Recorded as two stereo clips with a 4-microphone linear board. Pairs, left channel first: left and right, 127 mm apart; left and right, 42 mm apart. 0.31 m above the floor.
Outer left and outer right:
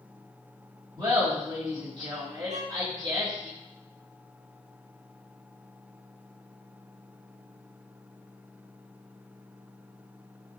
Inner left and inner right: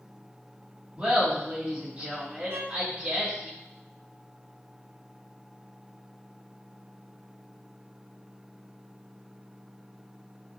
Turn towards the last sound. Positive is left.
turn(degrees=-75)  # may be behind; listen again after turning